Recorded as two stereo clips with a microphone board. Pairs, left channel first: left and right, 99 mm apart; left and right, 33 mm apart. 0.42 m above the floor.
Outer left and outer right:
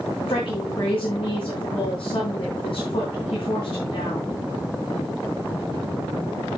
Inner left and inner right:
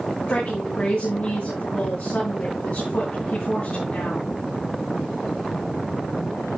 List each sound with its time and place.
0.3 s a woman speaking: 65° left (ahead or behind), 4.5 m